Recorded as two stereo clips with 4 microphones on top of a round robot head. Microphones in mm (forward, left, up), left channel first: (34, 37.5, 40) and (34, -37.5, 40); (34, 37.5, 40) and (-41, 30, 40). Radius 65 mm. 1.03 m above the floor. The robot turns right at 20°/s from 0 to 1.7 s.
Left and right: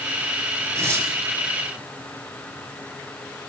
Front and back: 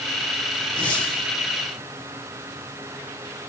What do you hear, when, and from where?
0.8 s tearing paper: 40° right, 4.5 m; by 1.1 s 30° right, 4.5 m